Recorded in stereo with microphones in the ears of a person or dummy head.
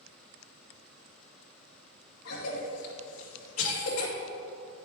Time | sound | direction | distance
2.2 | a cough | 80° left | 2 m